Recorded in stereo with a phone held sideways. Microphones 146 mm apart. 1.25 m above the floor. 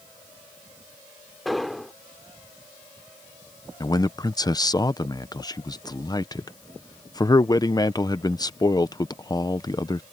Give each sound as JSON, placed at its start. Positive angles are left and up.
{"t": 1.4, "sound": "an explosion", "side_deg": 0}
{"t": 3.8, "sound": "a man speaking", "side_deg": 25}